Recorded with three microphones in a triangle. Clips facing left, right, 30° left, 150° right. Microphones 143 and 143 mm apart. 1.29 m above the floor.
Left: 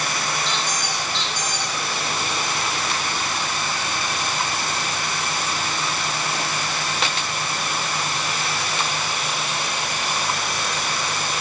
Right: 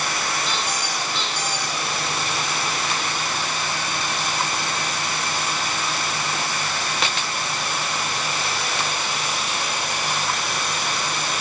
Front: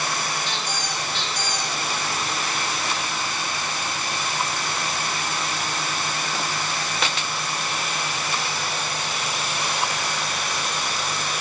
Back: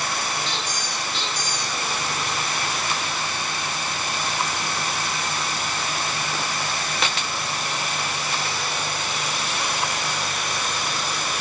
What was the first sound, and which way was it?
A squeak, 5° right.